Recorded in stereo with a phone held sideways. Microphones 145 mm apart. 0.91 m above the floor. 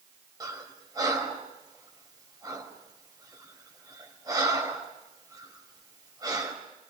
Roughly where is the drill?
I don't hear a drill.